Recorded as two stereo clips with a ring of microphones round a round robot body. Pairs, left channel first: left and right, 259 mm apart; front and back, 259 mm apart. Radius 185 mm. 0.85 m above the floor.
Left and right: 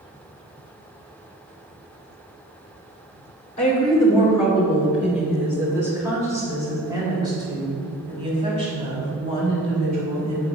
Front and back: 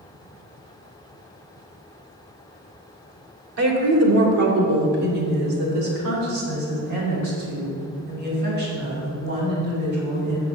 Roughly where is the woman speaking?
Behind.